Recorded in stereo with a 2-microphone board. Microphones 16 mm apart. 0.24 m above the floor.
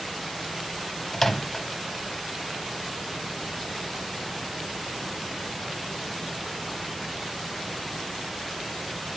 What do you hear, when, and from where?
1.1 s a microwave: 15° left (ahead or behind), 1.1 m